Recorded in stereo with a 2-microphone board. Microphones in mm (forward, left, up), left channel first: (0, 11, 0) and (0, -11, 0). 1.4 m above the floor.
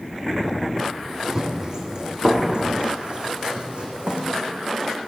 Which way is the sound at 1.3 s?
25° right (ahead or behind).